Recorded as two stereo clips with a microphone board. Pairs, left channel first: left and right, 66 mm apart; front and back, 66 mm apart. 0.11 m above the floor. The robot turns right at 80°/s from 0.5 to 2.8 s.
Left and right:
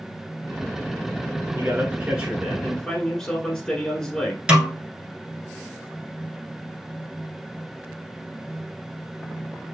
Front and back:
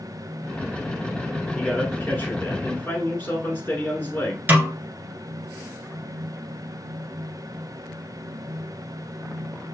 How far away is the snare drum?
About 1.2 m.